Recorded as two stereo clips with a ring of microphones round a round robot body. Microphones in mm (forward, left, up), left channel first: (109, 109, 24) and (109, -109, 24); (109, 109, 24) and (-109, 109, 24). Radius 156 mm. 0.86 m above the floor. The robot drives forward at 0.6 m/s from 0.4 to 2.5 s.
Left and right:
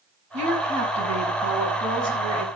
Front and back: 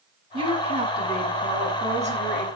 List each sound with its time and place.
0.3 s a woman speaking: 110° right, 4.5 m; by 2.5 s 120° right, 5 m